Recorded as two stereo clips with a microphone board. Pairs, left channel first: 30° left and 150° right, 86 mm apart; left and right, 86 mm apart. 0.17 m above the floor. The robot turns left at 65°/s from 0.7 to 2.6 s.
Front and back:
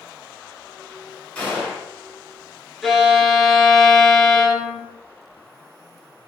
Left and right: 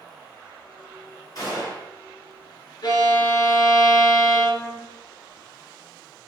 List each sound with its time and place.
1.4 s a gunshot: 95° left, 1.7 m; by 1.9 s 65° left, 1.7 m
2.8 s a violin: 120° left, 0.5 m